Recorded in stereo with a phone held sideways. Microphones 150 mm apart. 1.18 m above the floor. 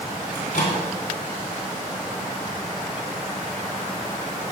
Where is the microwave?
80° left, 3.5 m.